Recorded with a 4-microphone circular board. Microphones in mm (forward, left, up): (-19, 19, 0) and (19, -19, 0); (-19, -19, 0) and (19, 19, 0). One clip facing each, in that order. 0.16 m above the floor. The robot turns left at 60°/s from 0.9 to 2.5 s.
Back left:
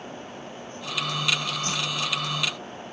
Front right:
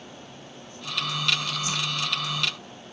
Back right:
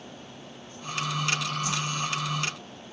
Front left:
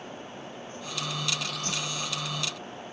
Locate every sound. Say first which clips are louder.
1.6 s a whoosh: even, back right 4 dB; 90° left, 1.7 m; by 1.9 s 75° left, 1.7 m